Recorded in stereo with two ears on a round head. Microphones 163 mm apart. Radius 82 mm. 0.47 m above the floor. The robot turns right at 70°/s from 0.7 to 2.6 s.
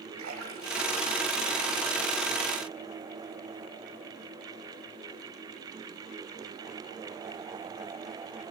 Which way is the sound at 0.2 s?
85° right.